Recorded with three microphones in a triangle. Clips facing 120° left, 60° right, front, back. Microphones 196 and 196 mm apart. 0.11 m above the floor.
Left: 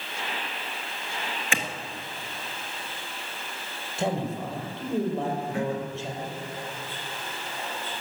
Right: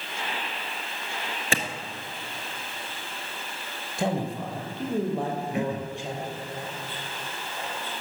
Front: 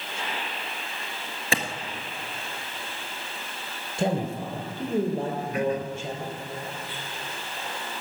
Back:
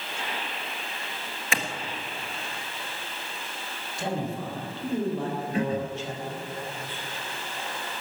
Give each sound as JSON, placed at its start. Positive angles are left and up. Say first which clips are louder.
{"t": 1.5, "sound": "a clap", "louder": "right 3 dB, front 3 dB", "azimuth_deg": -35, "distance_m": 1.5}
{"t": 4.0, "sound": "a man speaking", "louder": "even, front 4 dB", "azimuth_deg": 10, "distance_m": 3.5}
{"t": 5.5, "sound": "throat clearing", "louder": "even, even", "azimuth_deg": -125, "distance_m": 0.7}